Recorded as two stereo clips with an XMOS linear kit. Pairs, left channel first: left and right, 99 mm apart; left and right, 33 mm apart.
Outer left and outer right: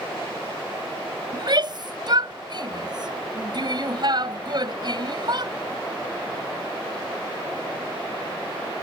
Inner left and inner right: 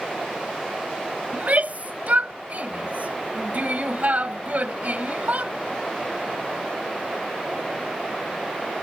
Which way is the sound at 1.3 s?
50° right (ahead or behind).